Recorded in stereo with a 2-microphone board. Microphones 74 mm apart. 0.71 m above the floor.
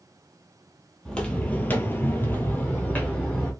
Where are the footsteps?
10° left (ahead or behind), 1.0 m; by 3.5 s 20° left (ahead or behind), 1.7 m.